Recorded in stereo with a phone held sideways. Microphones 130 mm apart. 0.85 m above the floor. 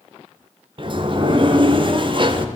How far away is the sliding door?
About 1.2 m.